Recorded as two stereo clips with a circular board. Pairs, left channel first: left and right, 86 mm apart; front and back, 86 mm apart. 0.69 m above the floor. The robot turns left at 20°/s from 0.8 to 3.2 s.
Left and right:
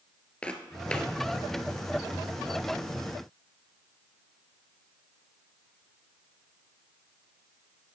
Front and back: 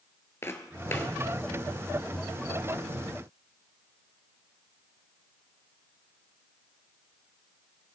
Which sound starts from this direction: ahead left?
Footsteps, at 0.4 s.